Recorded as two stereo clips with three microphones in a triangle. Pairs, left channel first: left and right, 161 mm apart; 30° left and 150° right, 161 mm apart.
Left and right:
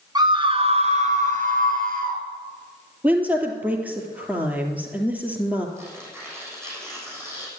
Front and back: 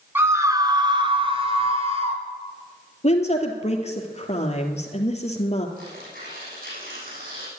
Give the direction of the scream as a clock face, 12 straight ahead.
3 o'clock.